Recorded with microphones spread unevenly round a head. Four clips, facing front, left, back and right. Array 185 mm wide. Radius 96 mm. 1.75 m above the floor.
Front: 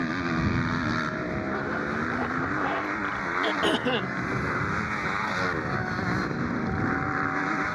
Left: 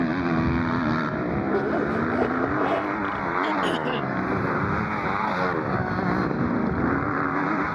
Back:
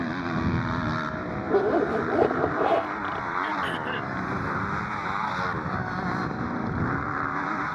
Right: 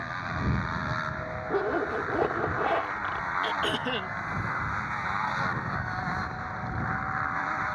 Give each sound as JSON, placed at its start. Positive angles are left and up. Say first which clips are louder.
{"t": 0.0, "sound": "a motorcycle", "louder": "left 10 dB, even", "azimuth_deg": 90}
{"t": 1.5, "sound": "a zipper", "louder": "left 1 dB, back 7 dB", "azimuth_deg": 170}
{"t": 3.4, "sound": "throat clearing", "louder": "left 6 dB, front 3 dB", "azimuth_deg": 20}